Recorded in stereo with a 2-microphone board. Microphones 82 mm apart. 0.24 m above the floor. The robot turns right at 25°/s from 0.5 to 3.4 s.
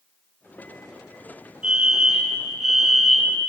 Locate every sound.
1.6 s a fire alarm: 15° right (ahead or behind), 2.5 m; by 3.4 s centre (ahead or behind), 2.5 m